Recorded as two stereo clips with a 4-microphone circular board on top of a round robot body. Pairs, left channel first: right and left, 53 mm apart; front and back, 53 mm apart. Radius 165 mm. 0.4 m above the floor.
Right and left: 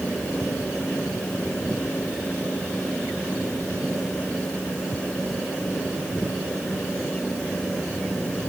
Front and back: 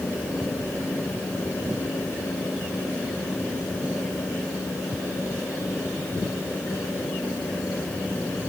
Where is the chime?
I don't hear a chime.